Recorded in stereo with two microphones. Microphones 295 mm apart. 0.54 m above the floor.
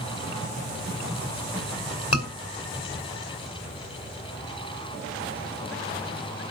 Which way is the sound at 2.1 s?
60° left (ahead or behind).